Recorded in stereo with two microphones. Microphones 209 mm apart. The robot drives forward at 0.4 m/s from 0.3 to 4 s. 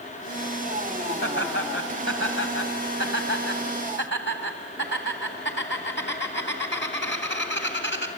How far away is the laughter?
About 3 m.